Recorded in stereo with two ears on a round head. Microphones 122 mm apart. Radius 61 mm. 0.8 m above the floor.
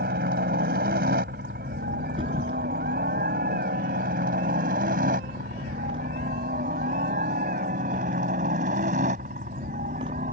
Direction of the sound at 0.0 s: 75° right (ahead or behind).